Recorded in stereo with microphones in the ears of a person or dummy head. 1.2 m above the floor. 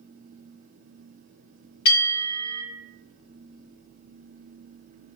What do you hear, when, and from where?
1.9 s a bell: 55° left (ahead or behind), 1.7 m